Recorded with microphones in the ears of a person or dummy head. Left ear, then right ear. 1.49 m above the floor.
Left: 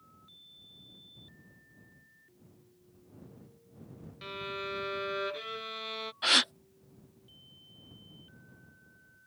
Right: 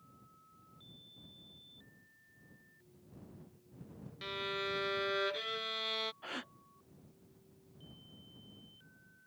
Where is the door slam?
No door slam in this recording.